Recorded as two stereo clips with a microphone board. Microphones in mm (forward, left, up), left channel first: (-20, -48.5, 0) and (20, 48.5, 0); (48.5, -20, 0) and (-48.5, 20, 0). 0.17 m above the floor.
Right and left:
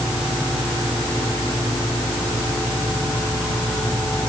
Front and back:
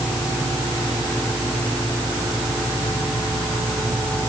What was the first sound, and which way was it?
Only background noise.